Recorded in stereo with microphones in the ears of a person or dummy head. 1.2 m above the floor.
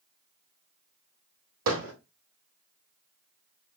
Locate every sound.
1.7 s hammering: 80° right, 4.5 m